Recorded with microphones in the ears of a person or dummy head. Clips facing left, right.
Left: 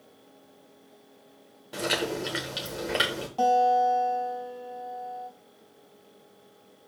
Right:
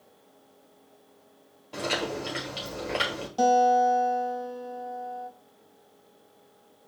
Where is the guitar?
25° right (ahead or behind), 2.0 m.